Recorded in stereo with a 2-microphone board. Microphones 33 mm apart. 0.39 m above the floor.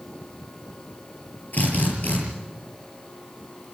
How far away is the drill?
About 8 m.